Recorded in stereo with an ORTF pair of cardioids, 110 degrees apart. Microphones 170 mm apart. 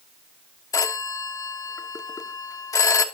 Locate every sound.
0.7 s a phone ringing: 20° left, 1.2 m